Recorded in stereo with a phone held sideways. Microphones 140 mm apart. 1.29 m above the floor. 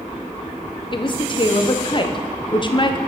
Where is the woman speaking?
35° left (ahead or behind), 0.5 m.